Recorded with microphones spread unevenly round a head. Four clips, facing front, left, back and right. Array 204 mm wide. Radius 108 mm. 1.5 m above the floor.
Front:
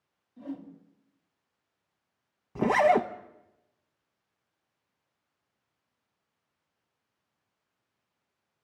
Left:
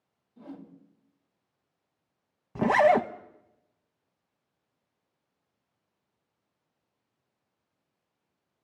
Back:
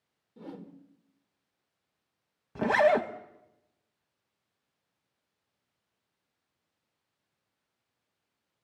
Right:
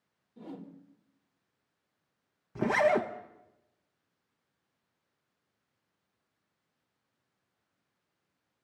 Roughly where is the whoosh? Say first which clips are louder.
Even, front 5 dB; behind.